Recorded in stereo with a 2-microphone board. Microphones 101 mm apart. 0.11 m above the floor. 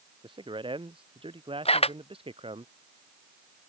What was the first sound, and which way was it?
A man speaking, 50° right (ahead or behind).